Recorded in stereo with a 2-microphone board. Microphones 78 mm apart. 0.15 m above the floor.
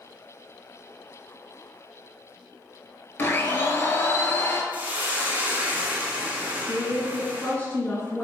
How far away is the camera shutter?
I don't hear a camera shutter.